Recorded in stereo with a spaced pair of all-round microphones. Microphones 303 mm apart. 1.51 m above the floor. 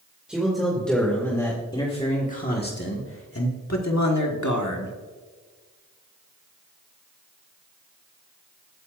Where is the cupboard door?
I don't hear a cupboard door.